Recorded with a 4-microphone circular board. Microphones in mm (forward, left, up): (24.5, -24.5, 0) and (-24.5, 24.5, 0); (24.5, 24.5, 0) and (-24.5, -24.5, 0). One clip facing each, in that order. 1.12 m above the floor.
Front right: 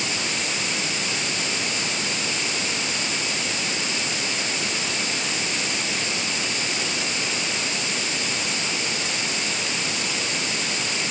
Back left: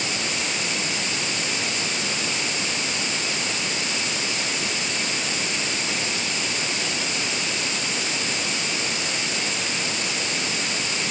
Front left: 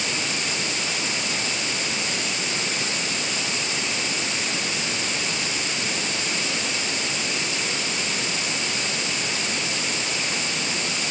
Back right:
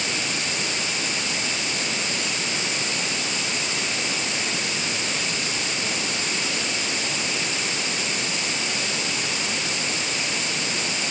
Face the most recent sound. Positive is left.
No sound to turn to.